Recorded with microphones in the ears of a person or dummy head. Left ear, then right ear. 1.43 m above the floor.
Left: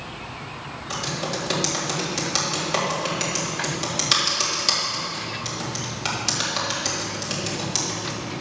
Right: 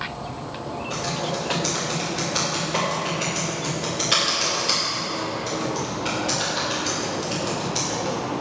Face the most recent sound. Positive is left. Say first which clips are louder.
# even
turn(degrees=40)  # may be behind; listen again after turning